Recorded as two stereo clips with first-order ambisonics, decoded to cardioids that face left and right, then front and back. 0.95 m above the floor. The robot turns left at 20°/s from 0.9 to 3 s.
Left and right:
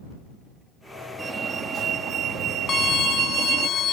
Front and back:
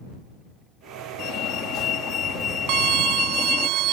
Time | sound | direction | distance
1.2 | a fire alarm | 25° right | ?
2.7 | a violin | 155° left | ?